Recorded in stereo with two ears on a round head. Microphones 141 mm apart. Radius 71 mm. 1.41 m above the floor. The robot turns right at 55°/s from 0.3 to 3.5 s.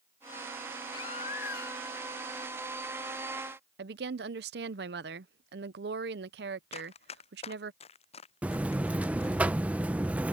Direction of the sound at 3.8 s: 75° right (ahead or behind).